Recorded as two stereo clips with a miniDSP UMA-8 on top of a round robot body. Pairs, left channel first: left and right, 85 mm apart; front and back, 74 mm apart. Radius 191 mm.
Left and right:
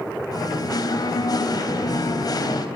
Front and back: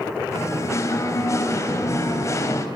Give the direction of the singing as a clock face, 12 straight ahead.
10 o'clock.